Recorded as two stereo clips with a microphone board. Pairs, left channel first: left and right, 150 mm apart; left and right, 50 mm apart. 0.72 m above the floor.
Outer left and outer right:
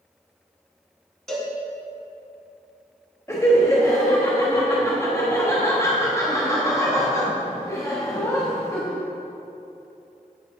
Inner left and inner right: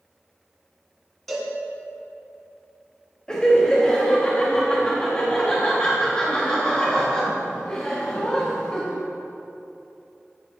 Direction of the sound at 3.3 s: 20° left (ahead or behind).